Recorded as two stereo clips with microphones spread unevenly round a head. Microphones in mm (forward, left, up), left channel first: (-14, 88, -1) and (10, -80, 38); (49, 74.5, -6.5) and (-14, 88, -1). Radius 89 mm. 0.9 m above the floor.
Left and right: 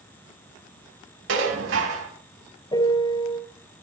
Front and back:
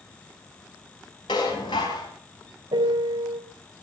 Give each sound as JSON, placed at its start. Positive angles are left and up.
{"t": 1.3, "sound": "dishes clattering", "azimuth_deg": -65, "distance_m": 5.0}
{"t": 2.7, "sound": "a piano", "azimuth_deg": 165, "distance_m": 3.0}